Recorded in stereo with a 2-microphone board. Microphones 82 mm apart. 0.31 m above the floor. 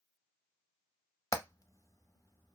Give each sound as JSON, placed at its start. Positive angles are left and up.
{"t": 1.3, "sound": "hammering", "side_deg": 45, "distance_m": 0.6}